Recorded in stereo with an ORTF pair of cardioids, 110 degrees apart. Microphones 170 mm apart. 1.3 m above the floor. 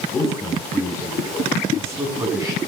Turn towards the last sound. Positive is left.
turn(degrees=-20)